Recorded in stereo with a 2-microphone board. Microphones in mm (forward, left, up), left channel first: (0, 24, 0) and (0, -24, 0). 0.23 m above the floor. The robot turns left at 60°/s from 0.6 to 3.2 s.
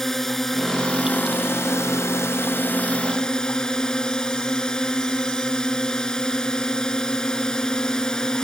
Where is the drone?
170° left; by 8.4 s 15° left.